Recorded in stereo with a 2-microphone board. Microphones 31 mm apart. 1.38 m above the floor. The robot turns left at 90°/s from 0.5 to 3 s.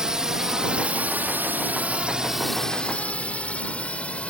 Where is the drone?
25° right (ahead or behind); by 4.3 s 45° left (ahead or behind).